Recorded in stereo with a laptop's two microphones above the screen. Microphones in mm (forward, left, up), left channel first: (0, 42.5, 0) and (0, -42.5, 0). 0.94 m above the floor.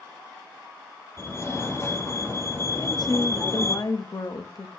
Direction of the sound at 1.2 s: 35° left (ahead or behind).